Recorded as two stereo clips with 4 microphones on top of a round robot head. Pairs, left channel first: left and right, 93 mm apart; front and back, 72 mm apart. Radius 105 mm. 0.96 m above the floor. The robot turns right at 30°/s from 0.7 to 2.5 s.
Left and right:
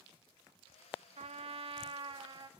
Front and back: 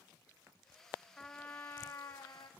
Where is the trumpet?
85° right, 1.3 m; by 2.5 s 45° right, 1.3 m.